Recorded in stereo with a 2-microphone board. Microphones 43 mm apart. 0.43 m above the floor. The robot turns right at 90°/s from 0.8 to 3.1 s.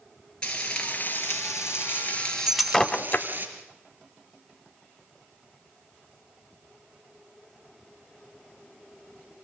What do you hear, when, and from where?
0.4 s frying: 25° left, 5 m; by 3.5 s 130° right, 5 m
2.5 s breaking glass: 10° right (ahead or behind), 1.1 m; by 3.3 s 45° left (ahead or behind), 1.1 m